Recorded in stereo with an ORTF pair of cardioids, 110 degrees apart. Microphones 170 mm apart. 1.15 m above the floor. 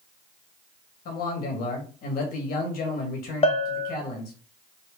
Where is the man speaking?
65° left, 1.7 m.